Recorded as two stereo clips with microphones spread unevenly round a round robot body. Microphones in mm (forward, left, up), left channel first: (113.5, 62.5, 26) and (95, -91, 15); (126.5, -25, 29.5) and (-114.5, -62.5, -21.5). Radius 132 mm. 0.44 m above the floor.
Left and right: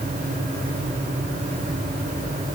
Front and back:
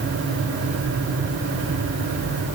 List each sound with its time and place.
Only background noise.